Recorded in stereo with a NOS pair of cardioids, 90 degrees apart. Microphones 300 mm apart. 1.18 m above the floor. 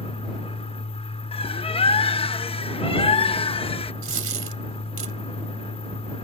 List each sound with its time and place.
0.0 s a fan: 20° left
1.3 s a bird: 20° left
4.0 s a dropped coin: 45° right